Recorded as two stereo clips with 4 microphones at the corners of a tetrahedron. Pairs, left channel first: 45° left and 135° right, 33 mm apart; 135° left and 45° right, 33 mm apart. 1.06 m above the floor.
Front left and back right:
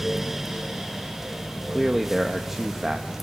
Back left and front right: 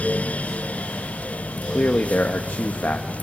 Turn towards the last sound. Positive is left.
turn(degrees=145)